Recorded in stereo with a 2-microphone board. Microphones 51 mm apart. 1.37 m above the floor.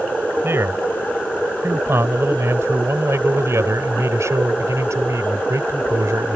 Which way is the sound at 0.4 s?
55° right (ahead or behind).